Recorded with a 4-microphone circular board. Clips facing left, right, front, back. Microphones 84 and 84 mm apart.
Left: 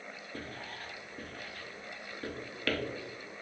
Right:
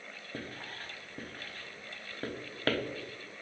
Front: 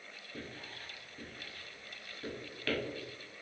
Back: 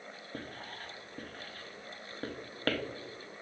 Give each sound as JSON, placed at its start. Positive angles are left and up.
{"t": 0.3, "sound": "writing", "azimuth_deg": -140, "distance_m": 0.6}